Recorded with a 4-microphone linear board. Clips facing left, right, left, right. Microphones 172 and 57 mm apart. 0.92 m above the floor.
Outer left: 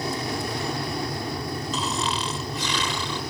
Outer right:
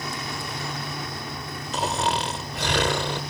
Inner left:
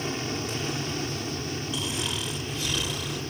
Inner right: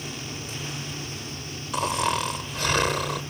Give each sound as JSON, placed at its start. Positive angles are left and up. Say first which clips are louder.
{"t": 0.0, "sound": "an aircraft", "louder": "outer left 5 dB, inner left 5 dB", "side_deg": 35}
{"t": 1.7, "sound": "snoring", "louder": "outer right 6 dB, inner right 11 dB", "side_deg": -65}